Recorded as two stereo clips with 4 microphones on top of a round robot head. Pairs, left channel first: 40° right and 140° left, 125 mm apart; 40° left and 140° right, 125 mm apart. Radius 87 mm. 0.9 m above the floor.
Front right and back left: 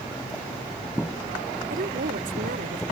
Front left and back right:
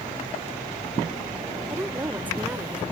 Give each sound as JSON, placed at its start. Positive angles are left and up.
{"t": 1.7, "sound": "a woman speaking", "azimuth_deg": 145}